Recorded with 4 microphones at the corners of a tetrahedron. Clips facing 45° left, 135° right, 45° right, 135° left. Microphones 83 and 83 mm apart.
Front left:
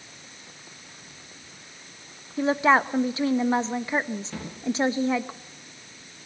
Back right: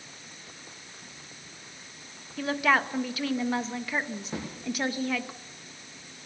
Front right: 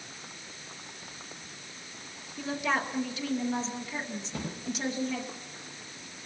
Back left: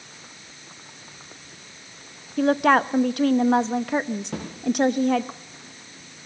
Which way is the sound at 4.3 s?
150° left.